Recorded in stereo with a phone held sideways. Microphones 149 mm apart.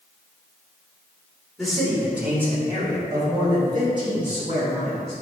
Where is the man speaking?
Centre (ahead or behind), 3 m; by 5.1 s 40° right (ahead or behind), 6 m.